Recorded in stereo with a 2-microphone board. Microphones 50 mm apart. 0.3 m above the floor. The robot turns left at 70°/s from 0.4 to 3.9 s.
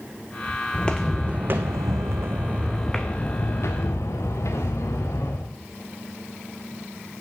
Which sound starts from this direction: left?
Footsteps, at 0.7 s.